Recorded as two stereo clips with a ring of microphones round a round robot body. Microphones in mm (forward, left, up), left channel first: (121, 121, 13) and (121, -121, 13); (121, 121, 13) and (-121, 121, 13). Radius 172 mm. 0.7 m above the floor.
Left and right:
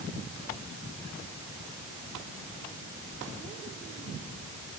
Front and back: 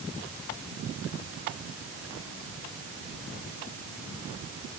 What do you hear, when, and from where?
Only background noise.